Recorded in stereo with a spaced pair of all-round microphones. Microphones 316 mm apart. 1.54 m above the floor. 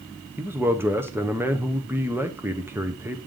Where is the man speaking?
5° right (ahead or behind), 0.9 m.